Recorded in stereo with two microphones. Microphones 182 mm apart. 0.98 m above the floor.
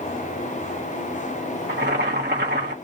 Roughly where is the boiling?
Right.